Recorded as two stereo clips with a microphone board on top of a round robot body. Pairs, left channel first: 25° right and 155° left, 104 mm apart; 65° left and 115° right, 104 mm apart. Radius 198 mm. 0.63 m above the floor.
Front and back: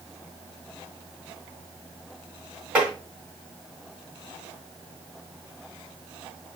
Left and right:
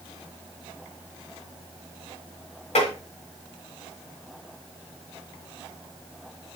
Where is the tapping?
80° left, 3.5 m.